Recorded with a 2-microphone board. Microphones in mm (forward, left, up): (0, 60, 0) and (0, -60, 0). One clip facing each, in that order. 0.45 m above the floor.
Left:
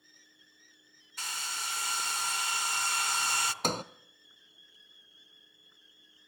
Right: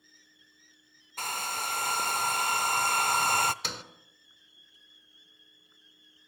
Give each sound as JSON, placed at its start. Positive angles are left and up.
{"t": 1.2, "sound": "a hair dryer", "side_deg": -50, "distance_m": 0.7}
{"t": 3.6, "sound": "a sliding door", "side_deg": 45, "distance_m": 0.7}